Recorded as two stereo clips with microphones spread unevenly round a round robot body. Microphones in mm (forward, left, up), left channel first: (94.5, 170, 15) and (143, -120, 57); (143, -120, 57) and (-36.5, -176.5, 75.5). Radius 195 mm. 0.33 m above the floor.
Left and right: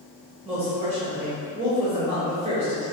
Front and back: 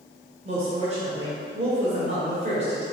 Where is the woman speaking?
140° right, 1.1 m.